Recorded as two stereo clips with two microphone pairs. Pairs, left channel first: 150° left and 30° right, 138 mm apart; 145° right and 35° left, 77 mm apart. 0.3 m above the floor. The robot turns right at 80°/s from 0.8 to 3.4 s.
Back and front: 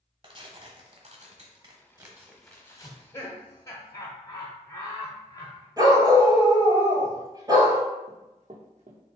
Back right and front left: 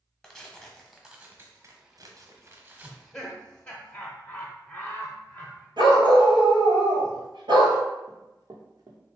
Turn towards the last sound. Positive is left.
turn(degrees=5)